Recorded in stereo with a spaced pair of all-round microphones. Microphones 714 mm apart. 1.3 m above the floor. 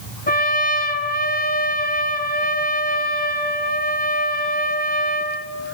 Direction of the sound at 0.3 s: 10° left (ahead or behind).